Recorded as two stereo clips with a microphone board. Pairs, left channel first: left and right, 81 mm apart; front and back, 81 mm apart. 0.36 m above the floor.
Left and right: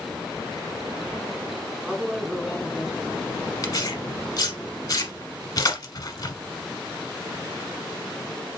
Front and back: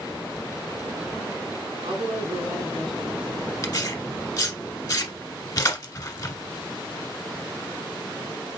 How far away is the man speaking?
About 2.5 m.